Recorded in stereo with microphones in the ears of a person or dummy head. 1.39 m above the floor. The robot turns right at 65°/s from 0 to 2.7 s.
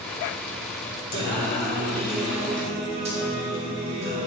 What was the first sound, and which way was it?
Singing, 110° left.